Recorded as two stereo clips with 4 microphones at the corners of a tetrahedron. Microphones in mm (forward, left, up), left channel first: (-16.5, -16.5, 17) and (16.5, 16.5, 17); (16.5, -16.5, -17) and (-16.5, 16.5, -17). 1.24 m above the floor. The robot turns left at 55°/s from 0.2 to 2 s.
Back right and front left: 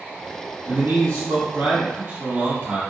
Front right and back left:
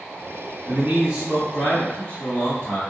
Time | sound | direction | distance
0.7 | a man speaking | 85° left | 1.5 m